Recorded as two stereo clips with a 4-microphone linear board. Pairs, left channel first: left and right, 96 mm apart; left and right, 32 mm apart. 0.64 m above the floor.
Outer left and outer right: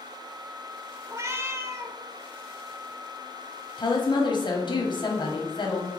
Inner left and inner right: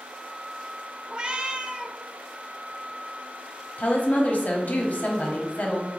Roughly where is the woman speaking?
Left.